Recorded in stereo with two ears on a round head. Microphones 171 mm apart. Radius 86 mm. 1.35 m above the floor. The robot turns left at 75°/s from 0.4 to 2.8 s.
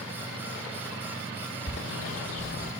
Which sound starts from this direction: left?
A bird, at 1.7 s.